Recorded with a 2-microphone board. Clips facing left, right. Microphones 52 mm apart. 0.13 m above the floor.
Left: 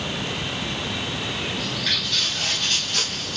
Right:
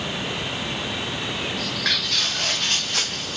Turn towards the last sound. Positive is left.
turn(degrees=-20)  # may be behind; listen again after turning